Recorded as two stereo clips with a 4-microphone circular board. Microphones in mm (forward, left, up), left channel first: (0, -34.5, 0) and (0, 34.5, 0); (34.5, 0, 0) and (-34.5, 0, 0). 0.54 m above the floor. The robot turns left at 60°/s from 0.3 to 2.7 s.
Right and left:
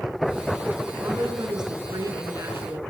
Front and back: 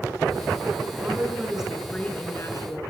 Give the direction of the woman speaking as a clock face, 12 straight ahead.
8 o'clock.